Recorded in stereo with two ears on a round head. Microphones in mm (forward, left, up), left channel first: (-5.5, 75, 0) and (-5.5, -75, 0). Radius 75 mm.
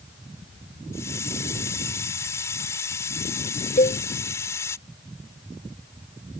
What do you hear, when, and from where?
0.9 s a hiss: 15° left (ahead or behind)
3.8 s a cowbell: 40° left (ahead or behind)